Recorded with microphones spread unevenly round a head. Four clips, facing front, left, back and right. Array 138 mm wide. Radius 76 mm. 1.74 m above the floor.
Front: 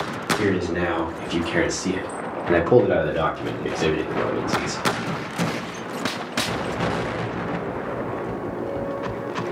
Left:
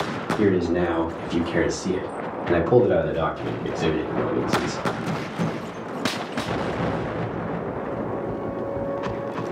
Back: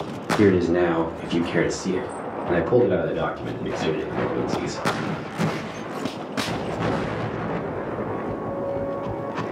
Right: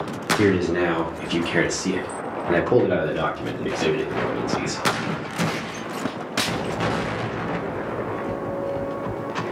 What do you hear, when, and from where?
0.4 s a man speaking: 175° left, 0.8 m; by 4.9 s 15° right, 1.9 m